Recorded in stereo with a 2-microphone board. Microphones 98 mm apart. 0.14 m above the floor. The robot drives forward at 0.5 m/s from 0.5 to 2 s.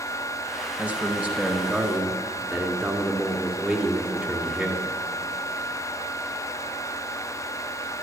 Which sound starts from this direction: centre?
A man speaking, at 0.8 s.